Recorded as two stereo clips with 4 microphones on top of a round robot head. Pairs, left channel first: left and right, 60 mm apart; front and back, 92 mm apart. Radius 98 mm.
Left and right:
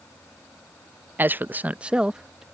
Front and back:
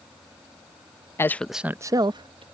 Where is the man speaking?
45° right; by 2.5 s 175° right.